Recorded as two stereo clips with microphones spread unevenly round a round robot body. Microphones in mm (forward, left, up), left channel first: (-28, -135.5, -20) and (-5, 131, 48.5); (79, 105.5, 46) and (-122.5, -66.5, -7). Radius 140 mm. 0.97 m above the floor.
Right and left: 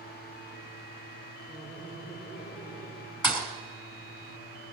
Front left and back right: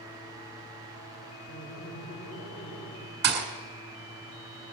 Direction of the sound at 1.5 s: 15° right.